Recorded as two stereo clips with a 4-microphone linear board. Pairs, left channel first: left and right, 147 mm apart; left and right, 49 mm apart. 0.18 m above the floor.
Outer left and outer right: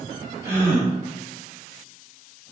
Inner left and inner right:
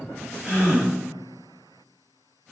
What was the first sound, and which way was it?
A gasp, 20° right (ahead or behind).